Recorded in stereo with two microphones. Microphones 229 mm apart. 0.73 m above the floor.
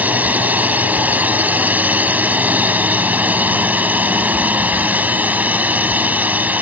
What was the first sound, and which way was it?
A drone, 5° right (ahead or behind).